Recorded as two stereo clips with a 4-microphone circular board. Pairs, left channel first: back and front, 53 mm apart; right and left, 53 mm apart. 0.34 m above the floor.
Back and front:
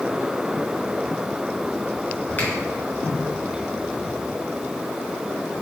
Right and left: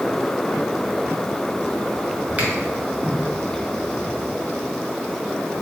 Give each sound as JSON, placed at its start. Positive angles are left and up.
{"t": 2.4, "sound": "a finger snap", "azimuth_deg": 145, "distance_m": 1.6}